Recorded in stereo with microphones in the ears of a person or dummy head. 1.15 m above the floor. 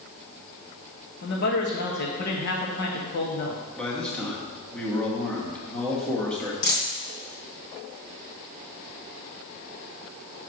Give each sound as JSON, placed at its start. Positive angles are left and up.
{"t": 1.2, "sound": "a man speaking", "side_deg": 50, "distance_m": 1.4}
{"t": 3.8, "sound": "a man speaking", "side_deg": 10, "distance_m": 1.6}
{"t": 6.6, "sound": "a dropped coin", "side_deg": 55, "distance_m": 3.0}